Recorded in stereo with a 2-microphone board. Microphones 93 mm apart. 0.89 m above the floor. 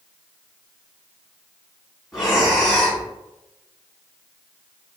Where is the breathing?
5° right (ahead or behind), 1.8 m.